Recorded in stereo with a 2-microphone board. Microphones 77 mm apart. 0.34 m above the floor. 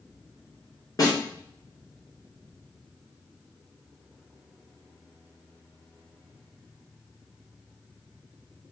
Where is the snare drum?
45° left (ahead or behind), 2.5 m.